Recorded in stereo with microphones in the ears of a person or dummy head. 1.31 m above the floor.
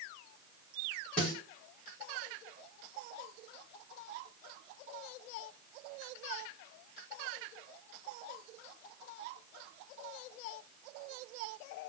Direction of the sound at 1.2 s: 5° left (ahead or behind).